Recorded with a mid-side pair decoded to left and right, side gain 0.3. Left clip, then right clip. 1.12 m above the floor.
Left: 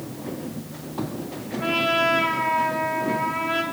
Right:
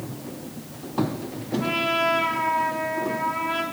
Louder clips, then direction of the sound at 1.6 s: Left 2 dB; 45° left.